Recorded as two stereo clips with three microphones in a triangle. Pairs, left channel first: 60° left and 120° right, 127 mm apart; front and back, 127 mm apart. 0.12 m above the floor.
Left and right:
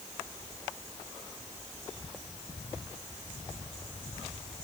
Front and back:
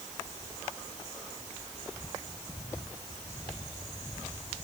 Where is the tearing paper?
I don't hear tearing paper.